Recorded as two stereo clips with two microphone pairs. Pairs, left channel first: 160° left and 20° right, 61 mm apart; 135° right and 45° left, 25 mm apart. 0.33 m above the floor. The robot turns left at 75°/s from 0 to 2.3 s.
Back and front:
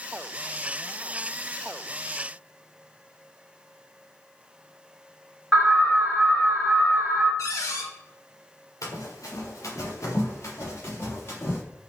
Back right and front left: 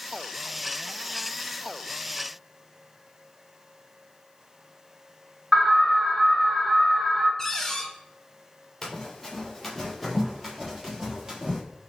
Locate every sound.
5.5 s an alarm: 20° left, 2.5 m
7.4 s a cupboard door: 150° left, 0.8 m
8.8 s running footsteps: 145° left, 1.6 m; by 11.6 s 110° left, 2.5 m